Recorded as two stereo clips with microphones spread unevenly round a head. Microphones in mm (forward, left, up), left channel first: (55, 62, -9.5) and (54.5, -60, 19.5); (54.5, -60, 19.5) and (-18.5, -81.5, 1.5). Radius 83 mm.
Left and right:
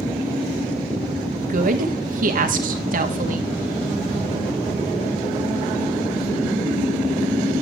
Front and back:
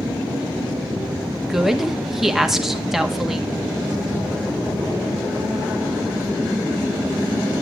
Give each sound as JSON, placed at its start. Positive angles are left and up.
{"t": 1.4, "sound": "a woman speaking", "azimuth_deg": -85, "distance_m": 1.2}